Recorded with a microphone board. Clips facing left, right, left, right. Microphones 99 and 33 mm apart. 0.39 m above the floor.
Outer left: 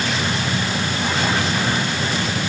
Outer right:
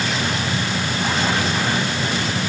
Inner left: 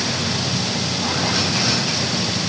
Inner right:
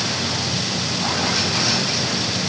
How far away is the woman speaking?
I don't hear a woman speaking.